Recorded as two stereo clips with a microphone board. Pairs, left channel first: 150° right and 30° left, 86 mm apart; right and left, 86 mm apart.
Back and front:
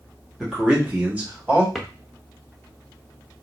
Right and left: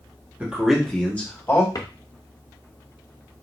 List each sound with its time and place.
0.4 s a man speaking: 100° left, 0.9 m; by 1.6 s 35° right, 1.4 m
1.8 s a drawer: 55° right, 0.6 m